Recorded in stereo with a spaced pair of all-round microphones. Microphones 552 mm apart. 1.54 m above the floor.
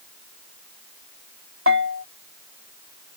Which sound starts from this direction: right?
A bell, at 1.7 s.